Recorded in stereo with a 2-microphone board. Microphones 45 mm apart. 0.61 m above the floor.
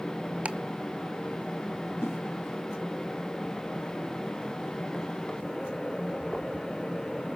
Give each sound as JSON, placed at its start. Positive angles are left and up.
{"t": 0.5, "sound": "ticking", "side_deg": -30, "distance_m": 1.2}
{"t": 2.0, "sound": "a whoosh", "side_deg": 85, "distance_m": 2.5}